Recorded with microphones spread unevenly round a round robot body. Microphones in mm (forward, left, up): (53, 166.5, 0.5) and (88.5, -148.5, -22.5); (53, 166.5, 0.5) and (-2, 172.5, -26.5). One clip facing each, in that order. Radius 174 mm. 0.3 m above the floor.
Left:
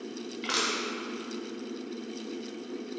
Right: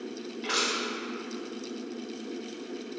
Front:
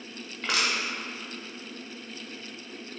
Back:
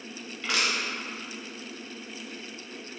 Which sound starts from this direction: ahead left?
Crushing, at 0.4 s.